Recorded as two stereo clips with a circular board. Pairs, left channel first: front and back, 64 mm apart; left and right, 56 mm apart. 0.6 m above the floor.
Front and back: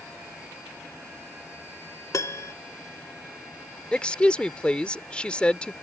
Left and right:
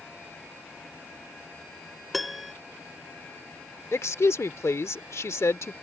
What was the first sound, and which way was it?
A piano, straight ahead.